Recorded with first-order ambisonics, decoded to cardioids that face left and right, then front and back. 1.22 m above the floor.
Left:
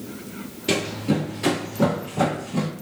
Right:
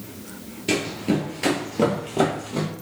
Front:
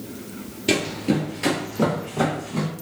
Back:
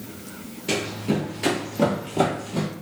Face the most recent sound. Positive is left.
turn(degrees=-115)